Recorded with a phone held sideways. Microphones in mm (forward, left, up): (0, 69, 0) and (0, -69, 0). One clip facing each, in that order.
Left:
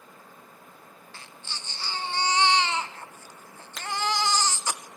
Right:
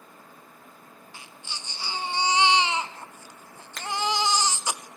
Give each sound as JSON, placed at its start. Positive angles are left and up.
{"t": 1.1, "sound": "a baby crying", "side_deg": -15, "distance_m": 0.7}
{"t": 3.8, "sound": "a finger snap", "side_deg": 5, "distance_m": 1.3}